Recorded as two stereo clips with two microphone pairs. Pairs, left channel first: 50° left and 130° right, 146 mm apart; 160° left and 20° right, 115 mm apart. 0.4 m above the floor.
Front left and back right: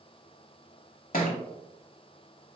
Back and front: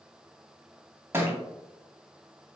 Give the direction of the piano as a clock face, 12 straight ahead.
No piano in this recording.